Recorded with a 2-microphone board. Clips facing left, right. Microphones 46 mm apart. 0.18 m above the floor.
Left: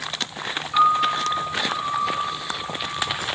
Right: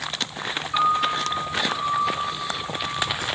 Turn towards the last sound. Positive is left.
turn(degrees=0)  # may be behind; listen again after turning